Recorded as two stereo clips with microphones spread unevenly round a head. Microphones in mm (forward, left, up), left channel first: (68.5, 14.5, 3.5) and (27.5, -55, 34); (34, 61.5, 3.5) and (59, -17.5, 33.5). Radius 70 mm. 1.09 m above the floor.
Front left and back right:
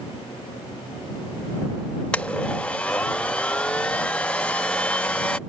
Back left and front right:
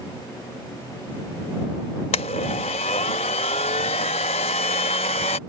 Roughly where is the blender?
Behind left.